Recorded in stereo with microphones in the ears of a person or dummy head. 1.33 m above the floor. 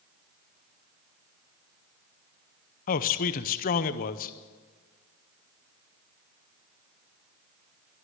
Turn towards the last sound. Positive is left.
turn(degrees=40)  # may be behind; listen again after turning